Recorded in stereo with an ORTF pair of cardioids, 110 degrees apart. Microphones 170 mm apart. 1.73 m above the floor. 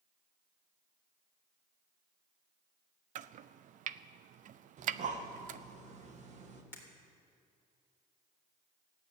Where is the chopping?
55° right, 0.5 m.